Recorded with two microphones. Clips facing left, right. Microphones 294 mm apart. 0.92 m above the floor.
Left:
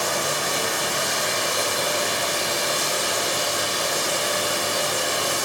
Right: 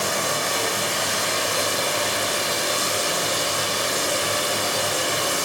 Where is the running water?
60° right (ahead or behind), 3 m.